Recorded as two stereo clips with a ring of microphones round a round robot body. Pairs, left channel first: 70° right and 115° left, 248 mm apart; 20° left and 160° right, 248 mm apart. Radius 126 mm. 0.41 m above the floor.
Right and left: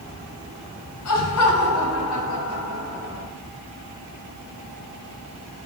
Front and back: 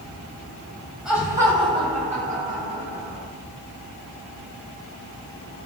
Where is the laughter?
70° right, 3 m; by 3.2 s 110° right, 5 m.